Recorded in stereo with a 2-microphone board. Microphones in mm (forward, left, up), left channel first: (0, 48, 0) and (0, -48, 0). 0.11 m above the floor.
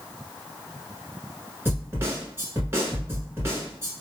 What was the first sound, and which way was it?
A snare drum, 25° right (ahead or behind).